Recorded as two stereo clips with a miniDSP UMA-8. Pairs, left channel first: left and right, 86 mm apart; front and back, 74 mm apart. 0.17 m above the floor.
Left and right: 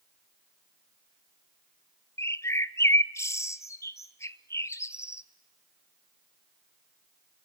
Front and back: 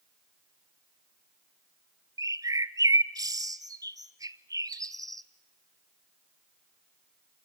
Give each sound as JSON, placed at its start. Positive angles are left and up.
{"t": 2.2, "sound": "a bird", "azimuth_deg": 145, "distance_m": 0.6}